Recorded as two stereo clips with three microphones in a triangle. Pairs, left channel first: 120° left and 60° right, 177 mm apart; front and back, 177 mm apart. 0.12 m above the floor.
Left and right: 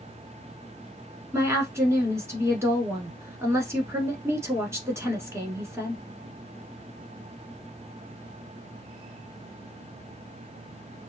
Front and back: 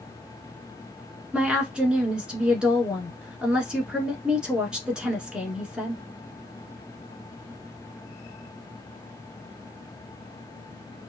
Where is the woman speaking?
105° right, 1.1 m.